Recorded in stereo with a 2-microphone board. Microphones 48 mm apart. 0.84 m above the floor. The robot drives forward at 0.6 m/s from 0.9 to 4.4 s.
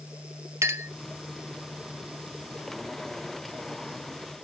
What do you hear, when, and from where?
0.6 s a clink: 75° right (ahead or behind), 0.9 m